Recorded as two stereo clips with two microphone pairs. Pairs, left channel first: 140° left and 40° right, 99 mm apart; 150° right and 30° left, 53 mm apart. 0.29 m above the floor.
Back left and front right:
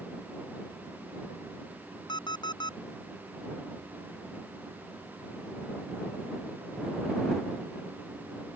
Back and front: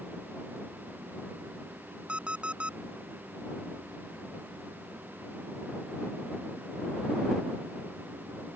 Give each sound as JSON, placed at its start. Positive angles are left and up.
{"t": 2.1, "sound": "an alarm clock", "azimuth_deg": 95}